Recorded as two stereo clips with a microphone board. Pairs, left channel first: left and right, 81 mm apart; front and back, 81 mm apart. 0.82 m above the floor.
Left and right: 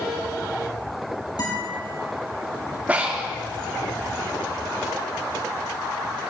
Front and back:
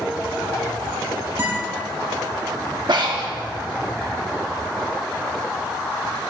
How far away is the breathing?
About 1.3 m.